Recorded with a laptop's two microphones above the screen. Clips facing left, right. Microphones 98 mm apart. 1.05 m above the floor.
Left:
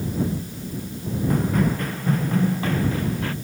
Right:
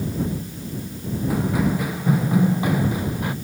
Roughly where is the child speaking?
No child speaking in this recording.